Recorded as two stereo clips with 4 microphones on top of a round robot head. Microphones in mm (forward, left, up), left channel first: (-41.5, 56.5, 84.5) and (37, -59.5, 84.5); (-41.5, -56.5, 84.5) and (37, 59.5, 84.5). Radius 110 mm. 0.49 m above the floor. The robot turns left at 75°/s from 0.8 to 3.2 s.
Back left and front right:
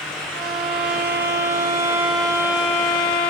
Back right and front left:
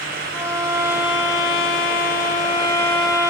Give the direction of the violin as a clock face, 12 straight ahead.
1 o'clock.